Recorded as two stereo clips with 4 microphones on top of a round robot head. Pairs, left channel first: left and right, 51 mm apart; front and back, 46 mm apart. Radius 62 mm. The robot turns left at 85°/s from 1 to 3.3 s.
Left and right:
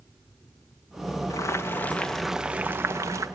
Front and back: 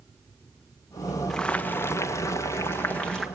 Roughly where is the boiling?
Left.